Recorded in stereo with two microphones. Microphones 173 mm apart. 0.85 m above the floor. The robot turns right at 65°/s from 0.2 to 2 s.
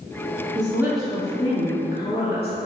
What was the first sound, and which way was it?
A woman speaking, 30° right.